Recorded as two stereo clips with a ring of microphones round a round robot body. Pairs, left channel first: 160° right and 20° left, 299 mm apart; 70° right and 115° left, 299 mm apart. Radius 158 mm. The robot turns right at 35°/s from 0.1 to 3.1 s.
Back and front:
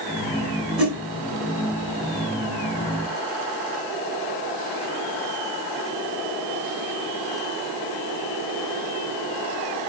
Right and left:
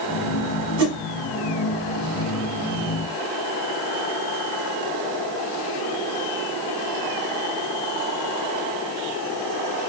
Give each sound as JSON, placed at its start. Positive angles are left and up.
{"t": 0.8, "sound": "a whoosh", "azimuth_deg": 110, "distance_m": 2.0}